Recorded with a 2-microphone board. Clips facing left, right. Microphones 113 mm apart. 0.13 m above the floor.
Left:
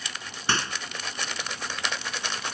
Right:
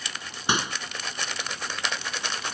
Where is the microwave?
15° right (ahead or behind).